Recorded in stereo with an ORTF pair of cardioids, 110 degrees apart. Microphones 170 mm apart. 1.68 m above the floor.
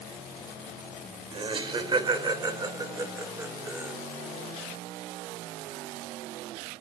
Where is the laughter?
30° right, 3.5 m; by 3.9 s 10° right, 2 m.